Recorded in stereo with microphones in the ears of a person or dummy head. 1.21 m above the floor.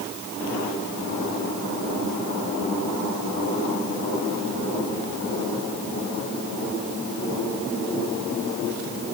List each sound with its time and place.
Only background noise.